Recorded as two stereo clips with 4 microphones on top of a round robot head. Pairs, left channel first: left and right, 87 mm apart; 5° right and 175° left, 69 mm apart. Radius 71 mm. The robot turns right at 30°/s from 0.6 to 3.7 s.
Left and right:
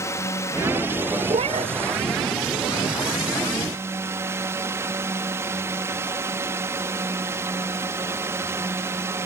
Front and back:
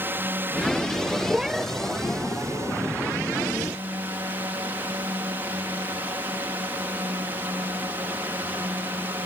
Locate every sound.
0.0 s a drone: 130° left; by 9.3 s 135° right
1.3 s a cat meowing: 105° right; by 1.7 s 90° right